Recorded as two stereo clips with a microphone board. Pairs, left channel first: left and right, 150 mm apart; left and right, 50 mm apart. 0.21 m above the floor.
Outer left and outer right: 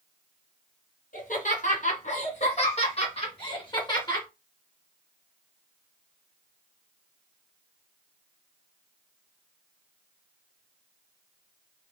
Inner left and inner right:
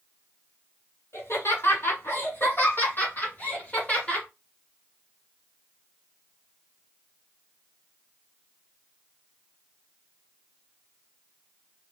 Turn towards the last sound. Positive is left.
turn(degrees=25)  # may be behind; listen again after turning